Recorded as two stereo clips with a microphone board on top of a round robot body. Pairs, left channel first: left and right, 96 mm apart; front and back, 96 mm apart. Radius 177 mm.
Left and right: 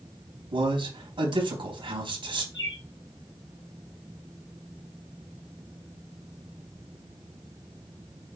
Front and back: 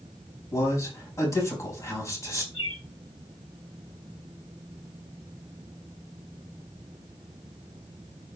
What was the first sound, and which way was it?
A man speaking, 60° right.